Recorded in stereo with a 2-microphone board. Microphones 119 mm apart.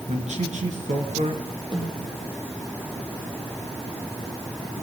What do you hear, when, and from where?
0.1 s a man speaking: 75° right (ahead or behind), 5 m
1.7 s a snare drum: 40° right (ahead or behind), 9.5 m